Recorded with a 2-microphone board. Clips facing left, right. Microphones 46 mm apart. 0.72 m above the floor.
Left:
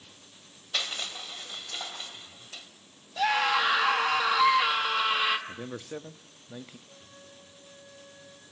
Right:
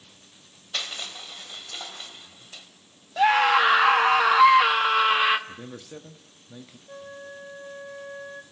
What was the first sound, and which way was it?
Crushing, centre (ahead or behind).